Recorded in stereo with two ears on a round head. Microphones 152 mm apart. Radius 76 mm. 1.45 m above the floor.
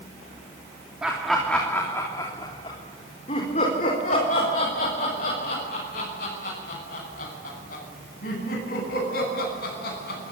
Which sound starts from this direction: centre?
Laughter, at 1.0 s.